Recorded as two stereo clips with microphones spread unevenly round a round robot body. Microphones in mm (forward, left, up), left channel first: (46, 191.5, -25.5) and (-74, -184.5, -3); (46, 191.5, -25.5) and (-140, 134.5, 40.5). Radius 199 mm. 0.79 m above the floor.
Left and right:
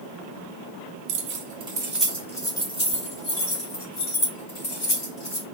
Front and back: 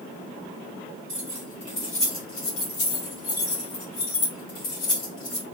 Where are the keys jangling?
55° right, 0.5 m; by 5.4 s 10° left, 2.5 m.